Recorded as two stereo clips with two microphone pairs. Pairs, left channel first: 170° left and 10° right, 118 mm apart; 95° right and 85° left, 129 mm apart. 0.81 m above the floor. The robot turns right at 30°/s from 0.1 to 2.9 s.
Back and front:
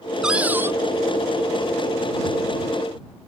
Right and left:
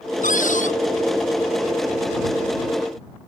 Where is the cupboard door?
95° right; by 0.7 s 80° right.